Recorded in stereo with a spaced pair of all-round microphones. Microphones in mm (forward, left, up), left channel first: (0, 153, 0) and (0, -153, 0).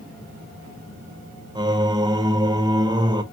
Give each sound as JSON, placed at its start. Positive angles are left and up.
{"t": 1.6, "sound": "singing", "side_deg": -15, "distance_m": 0.5}